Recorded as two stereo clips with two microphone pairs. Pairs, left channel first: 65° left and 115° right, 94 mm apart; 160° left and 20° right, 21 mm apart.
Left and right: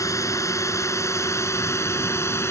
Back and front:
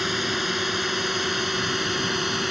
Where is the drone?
60° left.